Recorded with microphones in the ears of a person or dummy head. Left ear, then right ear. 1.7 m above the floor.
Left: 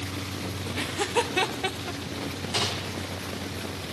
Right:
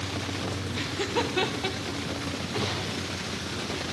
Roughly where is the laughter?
Left.